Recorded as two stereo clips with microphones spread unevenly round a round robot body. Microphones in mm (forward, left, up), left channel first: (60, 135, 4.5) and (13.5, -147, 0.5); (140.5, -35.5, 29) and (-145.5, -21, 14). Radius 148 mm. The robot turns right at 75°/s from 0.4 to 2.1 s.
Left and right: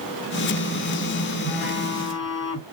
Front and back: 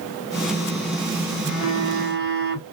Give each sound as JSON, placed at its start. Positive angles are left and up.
{"t": 1.4, "sound": "a phone buzzing", "azimuth_deg": 75, "distance_m": 2.5}